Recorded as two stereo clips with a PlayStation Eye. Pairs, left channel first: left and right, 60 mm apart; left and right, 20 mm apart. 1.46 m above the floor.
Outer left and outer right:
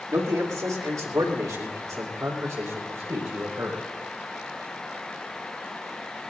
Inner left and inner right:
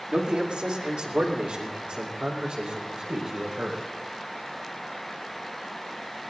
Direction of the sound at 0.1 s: 80° right.